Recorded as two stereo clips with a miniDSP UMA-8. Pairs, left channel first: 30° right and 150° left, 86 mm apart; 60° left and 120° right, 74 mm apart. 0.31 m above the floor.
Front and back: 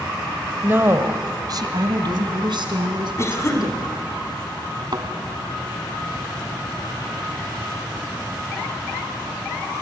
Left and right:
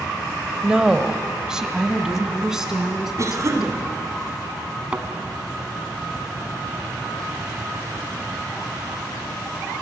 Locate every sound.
0.6 s a woman speaking: 175° left, 1.0 m; by 4.2 s 155° left, 4 m
3.2 s a cough: 80° right, 2.5 m
4.9 s a thud: 165° left, 1.5 m